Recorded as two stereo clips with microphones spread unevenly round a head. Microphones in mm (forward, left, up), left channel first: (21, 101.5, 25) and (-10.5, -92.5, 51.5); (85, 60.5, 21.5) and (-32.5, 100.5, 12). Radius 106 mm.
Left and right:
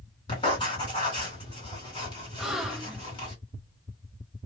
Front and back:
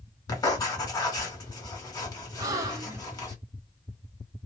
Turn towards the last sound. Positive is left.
turn(degrees=-165)